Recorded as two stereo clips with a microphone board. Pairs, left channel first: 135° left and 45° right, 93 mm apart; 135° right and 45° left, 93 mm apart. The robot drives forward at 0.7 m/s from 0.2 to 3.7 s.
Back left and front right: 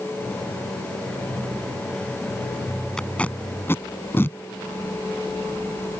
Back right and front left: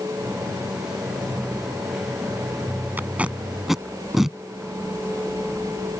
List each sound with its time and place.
3.0 s tape being pulled: 65° left; by 4.4 s 125° left